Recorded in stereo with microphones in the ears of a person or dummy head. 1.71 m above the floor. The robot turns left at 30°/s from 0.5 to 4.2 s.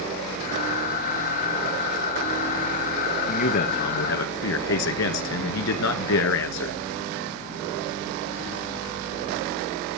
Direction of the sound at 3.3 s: 45° left (ahead or behind).